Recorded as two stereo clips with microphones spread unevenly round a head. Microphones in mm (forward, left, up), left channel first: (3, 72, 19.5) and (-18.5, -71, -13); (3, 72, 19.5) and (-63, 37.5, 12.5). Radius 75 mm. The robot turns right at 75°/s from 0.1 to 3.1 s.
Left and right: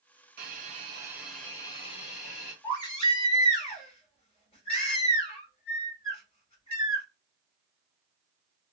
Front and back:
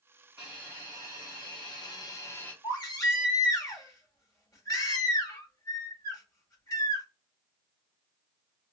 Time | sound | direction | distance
0.4 | a hiss | 75° right | 1.0 m
2.6 | a baby crying | 20° left | 1.5 m